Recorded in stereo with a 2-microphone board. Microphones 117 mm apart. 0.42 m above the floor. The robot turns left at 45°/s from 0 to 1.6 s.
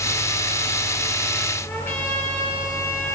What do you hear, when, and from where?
1.6 s a trumpet: 20° left (ahead or behind), 7.5 m